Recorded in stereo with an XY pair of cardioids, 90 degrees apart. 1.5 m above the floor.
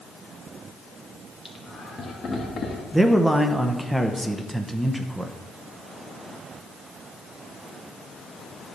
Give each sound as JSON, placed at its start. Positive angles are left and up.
{"t": 1.4, "sound": "laughter", "azimuth_deg": 35, "distance_m": 2.0}
{"t": 2.9, "sound": "a man speaking", "azimuth_deg": -10, "distance_m": 1.0}